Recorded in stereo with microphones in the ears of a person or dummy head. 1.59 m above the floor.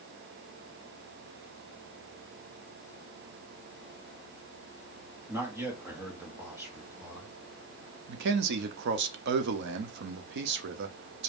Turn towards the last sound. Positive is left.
turn(degrees=-65)  # may be behind; listen again after turning